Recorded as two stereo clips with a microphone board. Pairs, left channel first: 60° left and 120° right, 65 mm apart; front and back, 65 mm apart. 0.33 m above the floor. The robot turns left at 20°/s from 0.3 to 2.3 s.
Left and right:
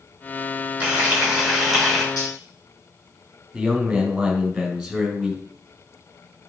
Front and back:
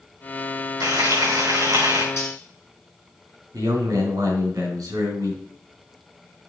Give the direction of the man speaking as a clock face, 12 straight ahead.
7 o'clock.